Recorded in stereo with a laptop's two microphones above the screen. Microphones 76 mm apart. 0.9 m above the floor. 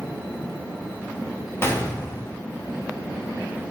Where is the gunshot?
30° left (ahead or behind), 0.7 m.